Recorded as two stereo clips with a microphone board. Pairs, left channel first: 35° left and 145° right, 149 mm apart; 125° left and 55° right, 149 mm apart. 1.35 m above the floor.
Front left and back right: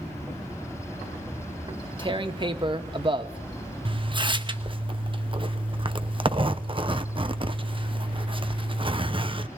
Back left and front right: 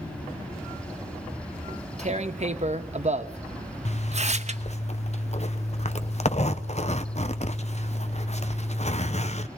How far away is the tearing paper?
About 1.0 m.